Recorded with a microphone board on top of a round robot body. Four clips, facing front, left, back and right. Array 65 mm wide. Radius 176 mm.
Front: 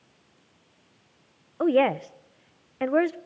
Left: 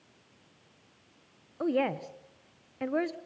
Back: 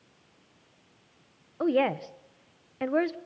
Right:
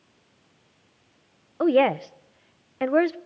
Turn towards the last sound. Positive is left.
turn(degrees=-70)